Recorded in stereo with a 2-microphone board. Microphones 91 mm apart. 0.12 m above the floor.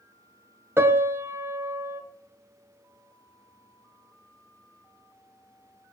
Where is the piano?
30° right (ahead or behind), 0.6 m.